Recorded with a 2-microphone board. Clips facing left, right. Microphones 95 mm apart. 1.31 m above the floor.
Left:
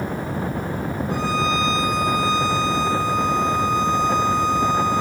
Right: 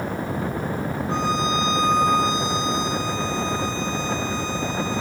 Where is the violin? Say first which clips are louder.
Left 1 dB; 20° right (ahead or behind), 7 m.